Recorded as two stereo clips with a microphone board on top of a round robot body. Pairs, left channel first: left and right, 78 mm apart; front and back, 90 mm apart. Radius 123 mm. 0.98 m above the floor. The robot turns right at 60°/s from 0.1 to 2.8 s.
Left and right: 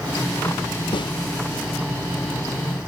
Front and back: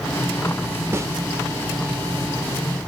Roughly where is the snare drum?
Behind left.